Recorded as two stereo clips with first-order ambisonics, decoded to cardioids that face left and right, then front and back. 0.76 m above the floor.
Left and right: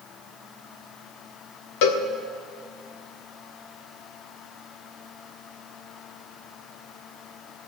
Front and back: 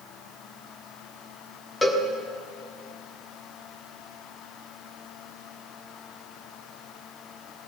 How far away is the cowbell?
About 1.3 m.